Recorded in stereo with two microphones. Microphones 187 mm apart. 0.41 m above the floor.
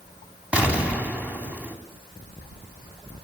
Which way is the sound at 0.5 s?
5° right (ahead or behind).